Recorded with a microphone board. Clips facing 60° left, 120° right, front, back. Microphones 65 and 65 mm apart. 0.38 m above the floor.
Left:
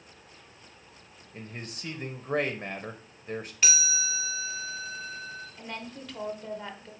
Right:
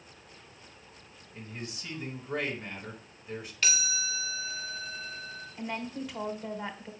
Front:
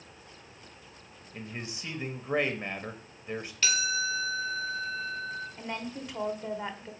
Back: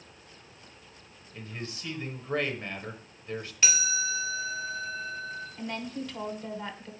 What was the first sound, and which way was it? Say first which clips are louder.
A man speaking: even, even; 65° left.